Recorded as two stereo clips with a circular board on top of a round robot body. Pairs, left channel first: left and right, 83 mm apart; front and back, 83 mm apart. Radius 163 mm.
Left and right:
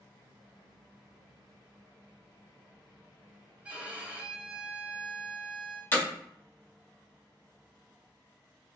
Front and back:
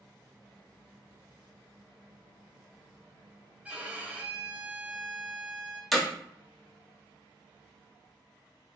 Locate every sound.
3.6 s a violin: 135° right, 0.8 m
5.9 s hammering: 90° left, 1.3 m